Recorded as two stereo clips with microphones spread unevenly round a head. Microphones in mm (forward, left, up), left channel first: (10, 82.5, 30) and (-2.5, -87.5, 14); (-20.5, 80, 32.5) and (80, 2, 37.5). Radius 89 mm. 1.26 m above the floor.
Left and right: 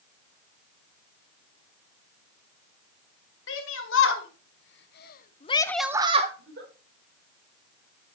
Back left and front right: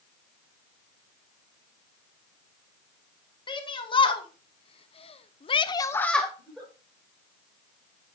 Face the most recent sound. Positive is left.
turn(degrees=-125)